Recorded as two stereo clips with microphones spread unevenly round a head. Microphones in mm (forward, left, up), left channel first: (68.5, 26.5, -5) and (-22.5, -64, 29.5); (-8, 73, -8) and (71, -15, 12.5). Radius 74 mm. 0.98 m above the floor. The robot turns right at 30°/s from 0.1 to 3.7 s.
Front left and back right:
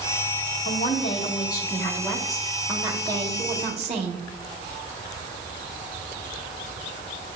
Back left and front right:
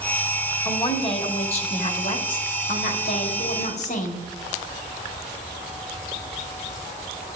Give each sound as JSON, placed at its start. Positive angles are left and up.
{"t": 0.7, "sound": "a woman speaking", "azimuth_deg": 85, "distance_m": 1.6}